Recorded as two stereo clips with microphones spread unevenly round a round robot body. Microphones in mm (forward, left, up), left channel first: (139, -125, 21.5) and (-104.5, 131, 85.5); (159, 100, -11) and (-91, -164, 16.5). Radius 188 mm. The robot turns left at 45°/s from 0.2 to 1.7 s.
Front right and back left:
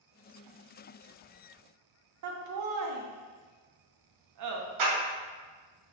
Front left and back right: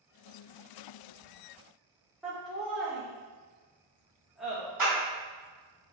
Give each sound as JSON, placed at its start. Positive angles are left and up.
{"t": 2.2, "sound": "laughter", "azimuth_deg": 130, "distance_m": 0.6}
{"t": 4.8, "sound": "a clap", "azimuth_deg": 140, "distance_m": 1.9}